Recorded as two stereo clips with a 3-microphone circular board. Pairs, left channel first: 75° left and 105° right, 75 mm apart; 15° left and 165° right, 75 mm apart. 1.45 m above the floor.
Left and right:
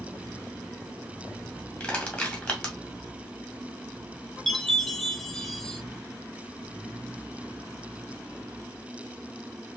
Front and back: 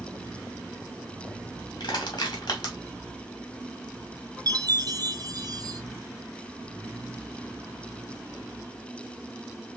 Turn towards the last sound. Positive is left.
turn(degrees=160)